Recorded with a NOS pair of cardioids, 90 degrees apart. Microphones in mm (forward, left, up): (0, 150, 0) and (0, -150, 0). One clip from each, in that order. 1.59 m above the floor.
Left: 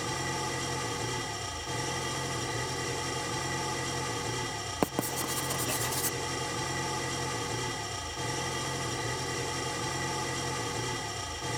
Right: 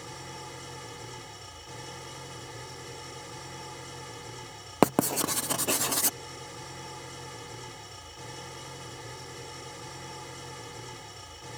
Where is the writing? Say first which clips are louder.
Right 8 dB; 35° right.